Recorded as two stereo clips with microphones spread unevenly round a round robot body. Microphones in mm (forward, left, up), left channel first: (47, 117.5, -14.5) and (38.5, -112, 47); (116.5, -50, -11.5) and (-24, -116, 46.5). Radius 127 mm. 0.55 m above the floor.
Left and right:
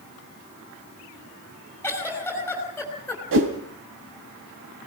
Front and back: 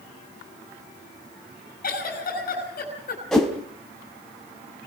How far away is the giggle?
About 6 m.